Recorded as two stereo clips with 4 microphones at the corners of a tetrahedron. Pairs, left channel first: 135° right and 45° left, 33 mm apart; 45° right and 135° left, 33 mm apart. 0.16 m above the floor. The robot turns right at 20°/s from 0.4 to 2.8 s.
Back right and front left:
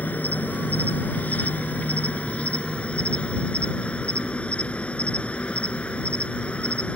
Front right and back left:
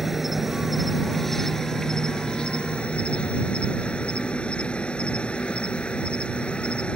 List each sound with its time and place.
0.0 s an insect: 140° right; by 7.0 s 90° right